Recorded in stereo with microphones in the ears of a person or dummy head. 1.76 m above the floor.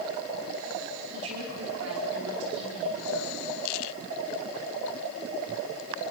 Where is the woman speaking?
85° right, 5 m.